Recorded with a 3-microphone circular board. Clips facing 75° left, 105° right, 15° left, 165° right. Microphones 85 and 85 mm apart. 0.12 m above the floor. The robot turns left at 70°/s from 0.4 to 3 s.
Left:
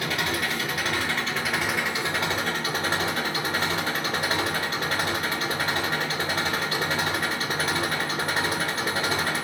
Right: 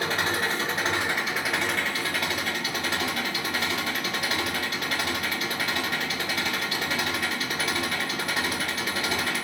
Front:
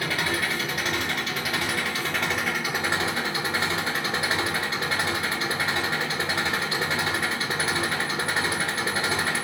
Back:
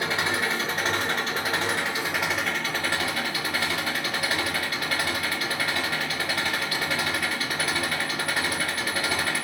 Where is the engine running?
115° right, 1.5 m; by 9.4 s 60° left, 1.5 m.